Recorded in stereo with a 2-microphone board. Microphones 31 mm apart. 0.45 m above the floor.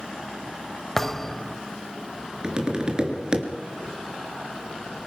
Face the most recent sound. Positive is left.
turn(degrees=-25)  # may be behind; listen again after turning